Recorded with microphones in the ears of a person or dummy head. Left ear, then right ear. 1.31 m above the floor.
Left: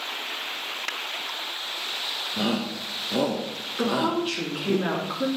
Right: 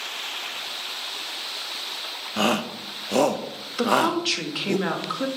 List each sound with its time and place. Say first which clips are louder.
2.4 s a shout: right 4 dB; 45° right (ahead or behind), 0.8 m
3.8 s a woman speaking: right 4 dB; 25° right (ahead or behind), 2.5 m